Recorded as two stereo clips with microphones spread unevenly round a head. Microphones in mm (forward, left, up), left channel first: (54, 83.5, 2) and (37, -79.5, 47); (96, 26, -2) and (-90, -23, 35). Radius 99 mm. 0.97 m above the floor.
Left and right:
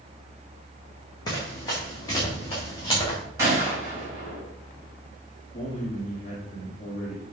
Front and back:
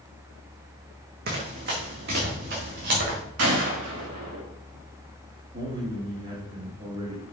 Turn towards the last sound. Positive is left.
turn(degrees=140)